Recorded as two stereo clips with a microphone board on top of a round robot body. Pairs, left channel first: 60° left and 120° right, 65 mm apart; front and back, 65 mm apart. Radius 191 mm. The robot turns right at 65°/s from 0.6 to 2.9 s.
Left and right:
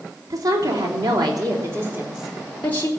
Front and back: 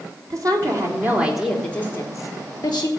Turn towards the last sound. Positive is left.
turn(degrees=5)